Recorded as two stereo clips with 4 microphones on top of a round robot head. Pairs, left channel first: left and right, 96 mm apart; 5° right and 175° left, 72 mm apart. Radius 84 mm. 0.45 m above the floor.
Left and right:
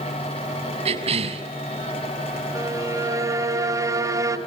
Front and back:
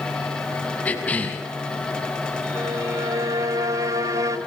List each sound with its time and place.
0.8 s a cough: 80° right, 5 m
2.5 s a violin: 145° right, 2.5 m